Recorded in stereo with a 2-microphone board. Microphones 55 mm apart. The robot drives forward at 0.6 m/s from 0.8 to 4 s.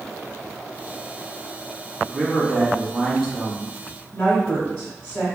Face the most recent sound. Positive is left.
turn(degrees=20)  # may be behind; listen again after turning